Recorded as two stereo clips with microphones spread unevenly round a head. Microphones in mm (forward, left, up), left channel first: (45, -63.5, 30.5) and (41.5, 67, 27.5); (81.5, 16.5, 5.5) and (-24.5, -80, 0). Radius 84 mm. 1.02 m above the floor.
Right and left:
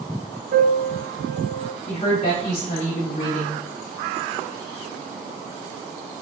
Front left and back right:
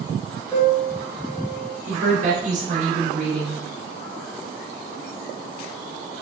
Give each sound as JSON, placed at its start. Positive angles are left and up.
{"t": 0.5, "sound": "a piano", "azimuth_deg": 120, "distance_m": 0.6}
{"t": 1.9, "sound": "a woman speaking", "azimuth_deg": -120, "distance_m": 1.3}